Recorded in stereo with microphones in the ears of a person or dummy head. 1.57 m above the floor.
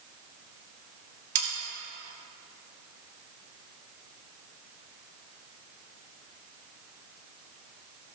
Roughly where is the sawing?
Right.